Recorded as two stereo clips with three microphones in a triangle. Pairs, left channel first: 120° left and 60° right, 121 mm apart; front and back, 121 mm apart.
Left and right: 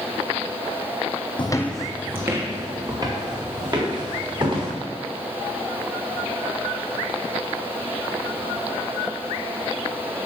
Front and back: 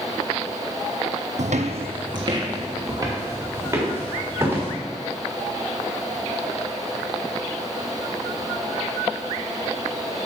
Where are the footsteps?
165° left, 0.7 m; by 4.7 s 110° right, 5 m.